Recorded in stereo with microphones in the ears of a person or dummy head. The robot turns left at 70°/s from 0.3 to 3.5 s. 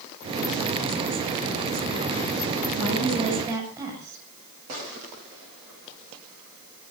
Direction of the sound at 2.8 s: 120° right.